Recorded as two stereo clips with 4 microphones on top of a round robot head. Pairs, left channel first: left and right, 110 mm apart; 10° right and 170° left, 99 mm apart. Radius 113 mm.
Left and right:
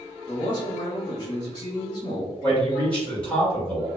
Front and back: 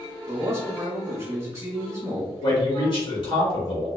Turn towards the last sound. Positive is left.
turn(degrees=15)